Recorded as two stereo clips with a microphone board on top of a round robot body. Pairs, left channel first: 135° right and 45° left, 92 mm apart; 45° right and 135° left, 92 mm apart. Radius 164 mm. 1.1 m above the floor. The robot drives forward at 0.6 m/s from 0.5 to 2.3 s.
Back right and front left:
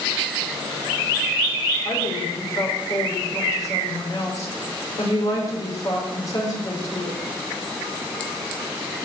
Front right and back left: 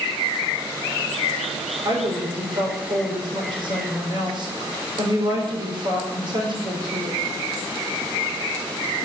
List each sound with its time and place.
1.9 s a woman speaking: 170° left, 4.5 m